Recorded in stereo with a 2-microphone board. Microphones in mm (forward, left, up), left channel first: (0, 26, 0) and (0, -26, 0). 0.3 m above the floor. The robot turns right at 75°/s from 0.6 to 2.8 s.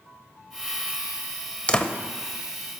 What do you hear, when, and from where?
1.7 s a door slam: 25° left (ahead or behind), 0.6 m; by 1.9 s 15° left (ahead or behind), 0.6 m